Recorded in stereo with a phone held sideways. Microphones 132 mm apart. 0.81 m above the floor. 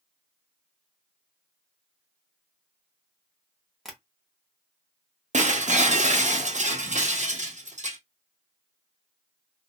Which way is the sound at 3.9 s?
Centre (ahead or behind).